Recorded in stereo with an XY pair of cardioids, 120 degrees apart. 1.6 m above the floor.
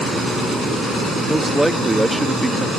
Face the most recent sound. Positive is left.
turn(degrees=-5)